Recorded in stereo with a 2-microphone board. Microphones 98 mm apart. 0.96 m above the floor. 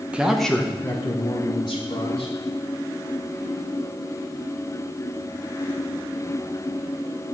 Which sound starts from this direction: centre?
A man speaking, at 0.1 s.